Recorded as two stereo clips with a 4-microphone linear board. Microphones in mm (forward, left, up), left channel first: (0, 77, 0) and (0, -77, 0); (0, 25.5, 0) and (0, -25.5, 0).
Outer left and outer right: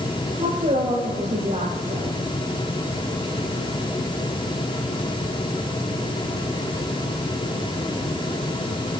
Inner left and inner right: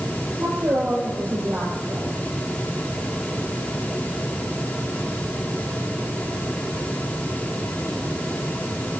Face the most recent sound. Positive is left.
turn(degrees=-50)  # may be behind; listen again after turning